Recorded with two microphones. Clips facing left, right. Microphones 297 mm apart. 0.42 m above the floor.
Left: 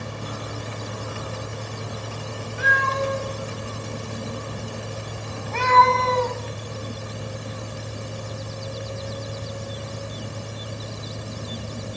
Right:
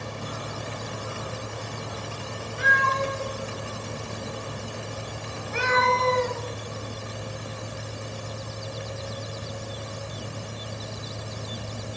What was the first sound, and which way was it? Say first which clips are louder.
A cat meowing: left 3 dB; 5° left (ahead or behind).